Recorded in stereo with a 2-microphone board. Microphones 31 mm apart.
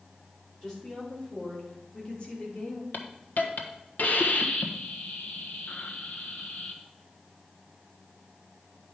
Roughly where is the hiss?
Left.